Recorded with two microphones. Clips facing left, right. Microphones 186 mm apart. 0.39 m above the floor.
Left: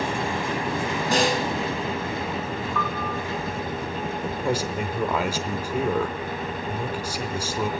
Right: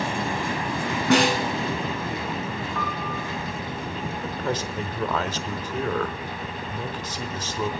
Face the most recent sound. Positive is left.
turn(degrees=10)  # may be behind; listen again after turning